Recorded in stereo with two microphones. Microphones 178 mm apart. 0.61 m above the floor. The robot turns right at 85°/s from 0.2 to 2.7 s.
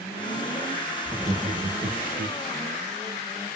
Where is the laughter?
170° right, 0.8 m; by 2.4 s 55° right, 0.8 m.